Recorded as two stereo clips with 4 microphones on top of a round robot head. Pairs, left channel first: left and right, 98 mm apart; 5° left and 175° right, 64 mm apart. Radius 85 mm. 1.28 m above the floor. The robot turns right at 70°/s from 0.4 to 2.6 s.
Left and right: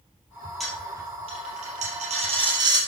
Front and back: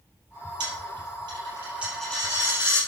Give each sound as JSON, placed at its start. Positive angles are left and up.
{"t": 0.6, "sound": "a dropped coin", "azimuth_deg": 180, "distance_m": 3.0}